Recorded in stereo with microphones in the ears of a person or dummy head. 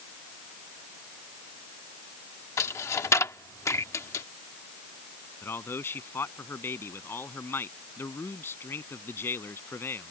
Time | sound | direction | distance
2.6 | a dropped coin | 15° left (ahead or behind) | ?
5.4 | a man speaking | 15° left (ahead or behind) | ?